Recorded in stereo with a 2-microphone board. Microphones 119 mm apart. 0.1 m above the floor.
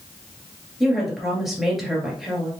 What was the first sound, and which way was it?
A woman speaking, centre (ahead or behind).